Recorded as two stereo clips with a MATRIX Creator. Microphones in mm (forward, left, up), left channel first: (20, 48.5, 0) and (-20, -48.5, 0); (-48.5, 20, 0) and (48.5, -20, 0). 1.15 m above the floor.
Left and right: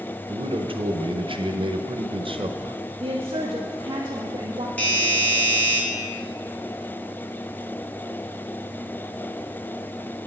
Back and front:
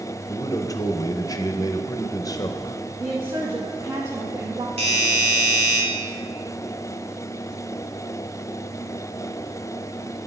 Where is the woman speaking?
75° right, 1.0 m.